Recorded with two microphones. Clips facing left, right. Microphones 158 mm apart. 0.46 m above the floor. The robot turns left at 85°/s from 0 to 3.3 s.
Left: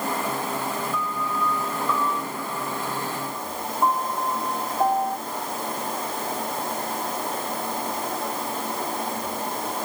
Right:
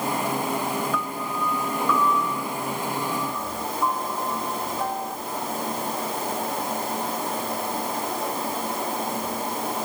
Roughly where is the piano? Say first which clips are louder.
Even; right.